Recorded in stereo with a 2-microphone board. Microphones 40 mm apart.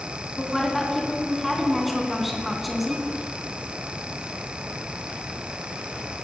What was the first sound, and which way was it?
A woman speaking, 5° right (ahead or behind).